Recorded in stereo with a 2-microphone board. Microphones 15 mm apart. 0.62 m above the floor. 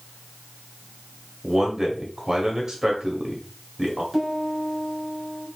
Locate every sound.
1.4 s a man speaking: 25° right (ahead or behind), 1.4 m
4.1 s a piano: 15° right (ahead or behind), 3 m